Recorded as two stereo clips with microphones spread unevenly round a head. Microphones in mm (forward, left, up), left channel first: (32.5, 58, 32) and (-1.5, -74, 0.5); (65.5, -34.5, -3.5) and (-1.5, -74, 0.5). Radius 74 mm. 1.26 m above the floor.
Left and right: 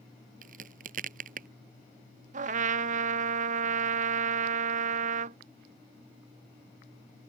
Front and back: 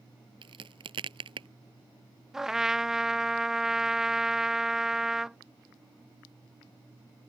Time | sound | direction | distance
0.4 | a crack | 140° right | ?
2.3 | a trumpet | 65° right | ?